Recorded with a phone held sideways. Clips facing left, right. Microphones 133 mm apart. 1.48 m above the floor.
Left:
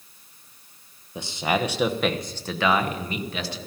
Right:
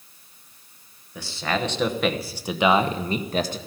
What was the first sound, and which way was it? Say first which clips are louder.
A man speaking: left 2 dB; 20° left (ahead or behind).